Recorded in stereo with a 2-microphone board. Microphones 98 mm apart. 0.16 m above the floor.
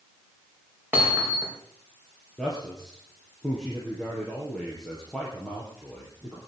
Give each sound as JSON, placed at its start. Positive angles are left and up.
{"t": 0.9, "sound": "hammering", "side_deg": -20, "distance_m": 6.5}
{"t": 2.4, "sound": "a man speaking", "side_deg": 5, "distance_m": 4.5}